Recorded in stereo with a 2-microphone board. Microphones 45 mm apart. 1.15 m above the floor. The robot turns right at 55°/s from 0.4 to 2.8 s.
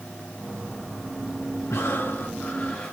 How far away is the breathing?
About 3.5 m.